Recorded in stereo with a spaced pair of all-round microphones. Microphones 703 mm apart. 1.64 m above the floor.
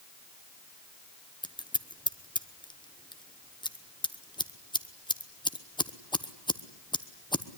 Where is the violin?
No violin in this recording.